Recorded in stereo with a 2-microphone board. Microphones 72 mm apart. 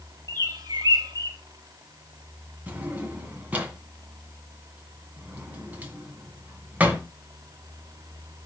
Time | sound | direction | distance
0.3 | a bird | 70° right (ahead or behind) | 1.6 m
2.7 | a drawer | 20° right (ahead or behind) | 1.9 m